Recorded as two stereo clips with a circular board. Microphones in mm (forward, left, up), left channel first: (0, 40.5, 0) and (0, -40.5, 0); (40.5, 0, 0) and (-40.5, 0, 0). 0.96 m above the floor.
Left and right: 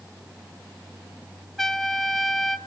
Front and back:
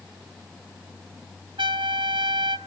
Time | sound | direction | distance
1.6 | a trumpet | 175° right | 1.4 m